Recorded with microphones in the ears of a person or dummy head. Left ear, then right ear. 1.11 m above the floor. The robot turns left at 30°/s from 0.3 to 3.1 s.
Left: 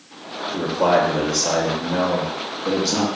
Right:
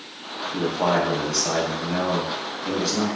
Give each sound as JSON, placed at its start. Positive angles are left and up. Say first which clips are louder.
{"t": 0.5, "sound": "a man speaking", "louder": "left 4 dB", "azimuth_deg": -145, "distance_m": 0.6}